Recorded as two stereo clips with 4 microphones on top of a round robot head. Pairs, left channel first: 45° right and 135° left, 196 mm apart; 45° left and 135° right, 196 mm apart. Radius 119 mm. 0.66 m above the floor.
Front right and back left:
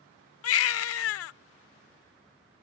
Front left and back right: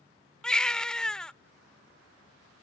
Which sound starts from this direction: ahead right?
A baby crying, at 0.4 s.